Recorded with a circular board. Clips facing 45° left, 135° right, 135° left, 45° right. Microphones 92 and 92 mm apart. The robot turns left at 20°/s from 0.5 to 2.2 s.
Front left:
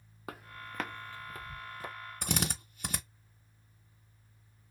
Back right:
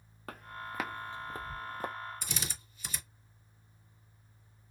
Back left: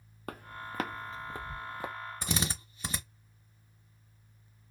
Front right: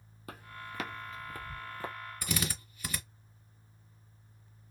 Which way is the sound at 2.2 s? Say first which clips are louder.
Front left 7 dB, back left 1 dB; 75° left.